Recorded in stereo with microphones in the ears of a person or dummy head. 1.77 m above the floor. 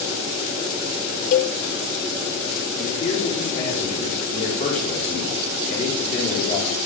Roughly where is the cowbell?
Left.